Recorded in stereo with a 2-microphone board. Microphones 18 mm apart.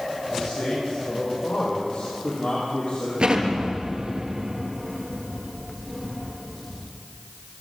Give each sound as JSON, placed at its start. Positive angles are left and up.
{"t": 0.3, "sound": "a man speaking", "side_deg": 85, "distance_m": 9.0}
{"t": 3.2, "sound": "an explosion", "side_deg": -65, "distance_m": 3.5}